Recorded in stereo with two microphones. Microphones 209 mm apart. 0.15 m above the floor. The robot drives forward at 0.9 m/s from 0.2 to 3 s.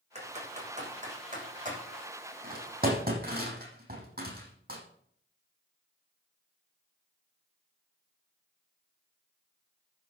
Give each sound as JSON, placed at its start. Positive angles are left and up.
{"t": 0.1, "sound": "typing on a keyboard", "side_deg": -30, "distance_m": 7.5}